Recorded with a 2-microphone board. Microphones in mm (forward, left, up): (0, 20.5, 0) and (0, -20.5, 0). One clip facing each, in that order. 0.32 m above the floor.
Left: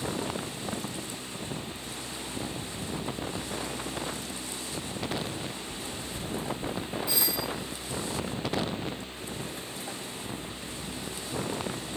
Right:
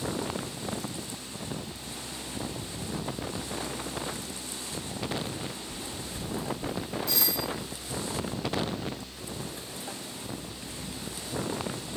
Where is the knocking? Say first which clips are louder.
Left 1 dB; 45° left (ahead or behind), 1.6 m.